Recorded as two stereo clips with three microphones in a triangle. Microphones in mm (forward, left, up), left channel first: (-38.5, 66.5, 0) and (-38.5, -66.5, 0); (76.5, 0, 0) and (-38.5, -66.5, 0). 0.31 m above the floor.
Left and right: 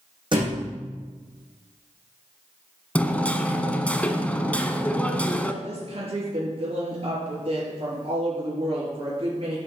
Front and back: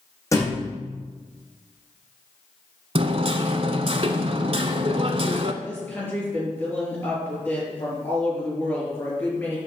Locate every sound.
0.3 s a thud: 35° right, 4.5 m
3.0 s hammering: 170° left, 0.8 m
5.6 s a woman speaking: 45° right, 5.5 m